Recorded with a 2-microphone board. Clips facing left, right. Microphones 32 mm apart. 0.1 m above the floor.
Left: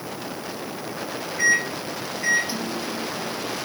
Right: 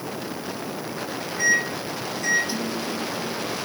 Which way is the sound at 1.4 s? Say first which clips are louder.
Left 1 dB; 20° left (ahead or behind).